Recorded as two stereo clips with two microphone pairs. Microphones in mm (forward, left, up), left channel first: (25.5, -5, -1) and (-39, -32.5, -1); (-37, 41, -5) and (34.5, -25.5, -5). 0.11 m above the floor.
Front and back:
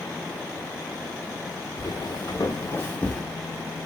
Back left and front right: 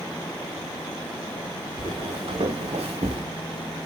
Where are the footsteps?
Straight ahead, 1.1 m; by 3.2 s 55° right, 0.8 m.